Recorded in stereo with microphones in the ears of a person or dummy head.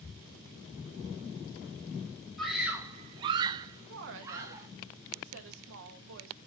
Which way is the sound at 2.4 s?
Centre (ahead or behind).